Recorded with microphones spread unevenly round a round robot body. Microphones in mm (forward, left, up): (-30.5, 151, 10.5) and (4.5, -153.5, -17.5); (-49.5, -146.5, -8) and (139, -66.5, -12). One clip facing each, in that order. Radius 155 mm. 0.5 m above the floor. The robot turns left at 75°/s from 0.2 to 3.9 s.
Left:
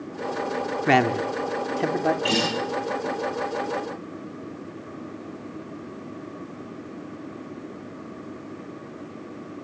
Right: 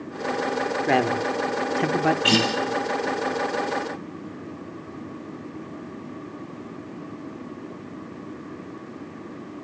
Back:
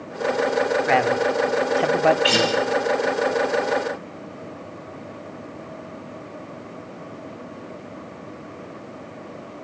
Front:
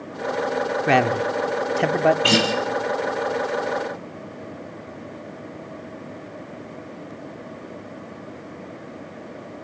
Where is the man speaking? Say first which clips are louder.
Left 2 dB, even; 40° left, 1.0 m; by 2.1 s 55° right, 1.0 m.